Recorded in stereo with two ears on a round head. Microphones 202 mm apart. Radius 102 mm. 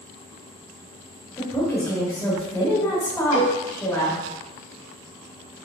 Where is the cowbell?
55° left (ahead or behind), 1.3 m.